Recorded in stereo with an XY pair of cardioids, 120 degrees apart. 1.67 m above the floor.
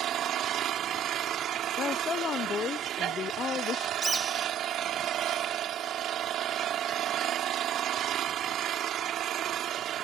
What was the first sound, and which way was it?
An engine running, 60° right.